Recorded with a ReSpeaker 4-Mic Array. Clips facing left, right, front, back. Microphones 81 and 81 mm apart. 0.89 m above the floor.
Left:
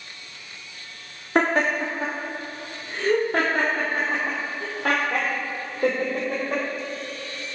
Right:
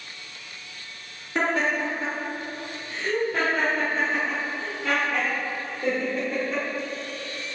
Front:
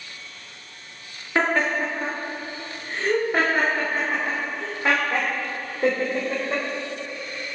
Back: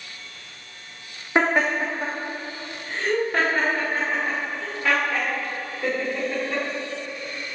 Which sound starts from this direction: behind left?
Laughter, at 1.4 s.